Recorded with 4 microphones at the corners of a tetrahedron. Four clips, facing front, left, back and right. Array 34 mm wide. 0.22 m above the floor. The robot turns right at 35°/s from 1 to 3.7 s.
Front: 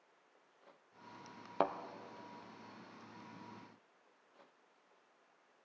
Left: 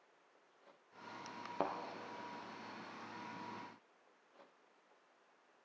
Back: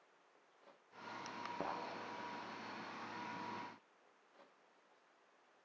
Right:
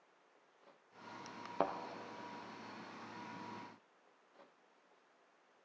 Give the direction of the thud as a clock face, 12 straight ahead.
12 o'clock.